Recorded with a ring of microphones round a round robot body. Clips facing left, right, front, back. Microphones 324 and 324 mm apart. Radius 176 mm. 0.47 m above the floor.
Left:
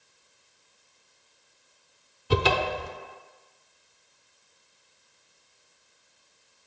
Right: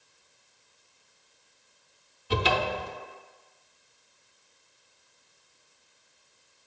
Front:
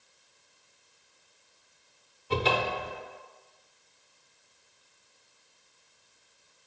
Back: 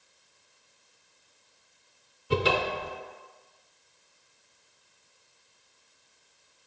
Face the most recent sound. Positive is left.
turn(degrees=110)